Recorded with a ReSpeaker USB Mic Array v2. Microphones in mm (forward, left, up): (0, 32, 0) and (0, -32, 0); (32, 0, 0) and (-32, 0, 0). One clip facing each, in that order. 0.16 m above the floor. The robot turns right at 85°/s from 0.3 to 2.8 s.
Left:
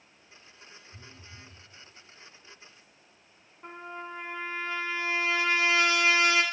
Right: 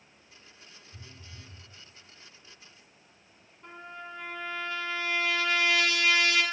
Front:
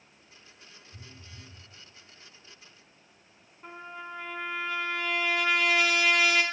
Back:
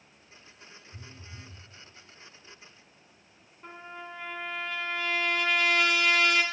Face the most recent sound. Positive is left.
turn(degrees=85)